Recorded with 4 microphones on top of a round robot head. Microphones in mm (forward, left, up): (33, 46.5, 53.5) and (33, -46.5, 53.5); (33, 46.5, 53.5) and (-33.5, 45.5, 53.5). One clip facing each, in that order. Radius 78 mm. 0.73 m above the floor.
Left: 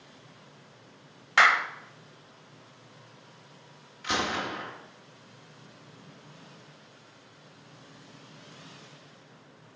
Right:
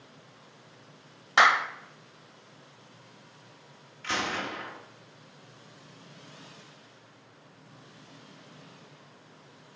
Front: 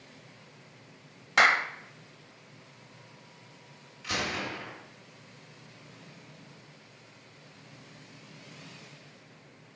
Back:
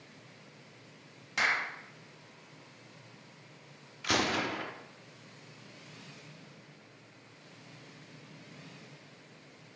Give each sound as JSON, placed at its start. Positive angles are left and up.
{"t": 1.4, "sound": "a clap", "azimuth_deg": -20, "distance_m": 0.6}
{"t": 4.0, "sound": "a gunshot", "azimuth_deg": 170, "distance_m": 0.9}